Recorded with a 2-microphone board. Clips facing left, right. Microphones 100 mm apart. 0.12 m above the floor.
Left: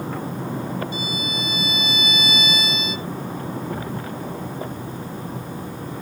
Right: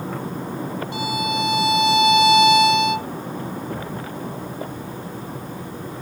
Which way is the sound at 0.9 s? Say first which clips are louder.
Right 5 dB; 75° right (ahead or behind).